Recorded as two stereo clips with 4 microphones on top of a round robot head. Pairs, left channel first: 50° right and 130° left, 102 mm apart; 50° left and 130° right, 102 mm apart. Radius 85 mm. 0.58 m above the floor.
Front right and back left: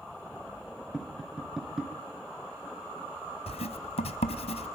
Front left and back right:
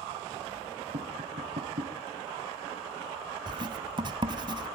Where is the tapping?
145° right, 4.5 m.